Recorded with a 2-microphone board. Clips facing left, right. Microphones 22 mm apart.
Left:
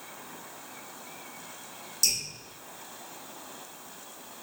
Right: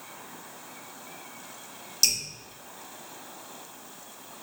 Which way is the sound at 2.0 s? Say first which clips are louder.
Right 3 dB; 50° right (ahead or behind).